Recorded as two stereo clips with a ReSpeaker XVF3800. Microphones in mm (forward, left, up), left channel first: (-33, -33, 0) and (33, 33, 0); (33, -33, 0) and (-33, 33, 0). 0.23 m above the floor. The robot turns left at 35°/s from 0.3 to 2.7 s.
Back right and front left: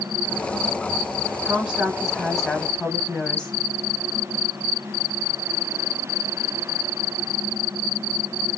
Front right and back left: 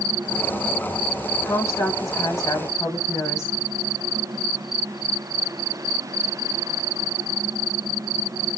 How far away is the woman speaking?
About 1.2 m.